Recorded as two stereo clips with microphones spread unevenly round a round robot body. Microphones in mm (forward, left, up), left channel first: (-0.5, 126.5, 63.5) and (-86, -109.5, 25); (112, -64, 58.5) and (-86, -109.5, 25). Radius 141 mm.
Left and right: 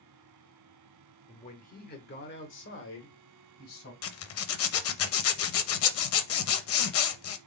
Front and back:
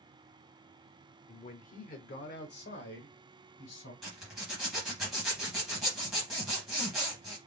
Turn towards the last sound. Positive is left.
turn(degrees=105)